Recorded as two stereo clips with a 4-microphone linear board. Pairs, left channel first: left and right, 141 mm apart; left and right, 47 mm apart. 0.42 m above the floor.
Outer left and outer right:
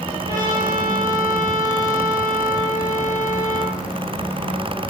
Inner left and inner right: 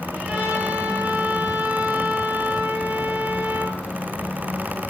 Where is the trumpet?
30° right (ahead or behind), 7 m.